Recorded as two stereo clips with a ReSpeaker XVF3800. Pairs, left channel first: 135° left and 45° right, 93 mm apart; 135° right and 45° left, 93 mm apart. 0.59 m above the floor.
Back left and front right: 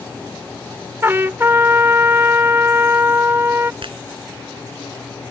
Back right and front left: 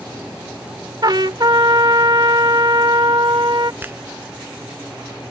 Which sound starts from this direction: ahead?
A trumpet, at 1.0 s.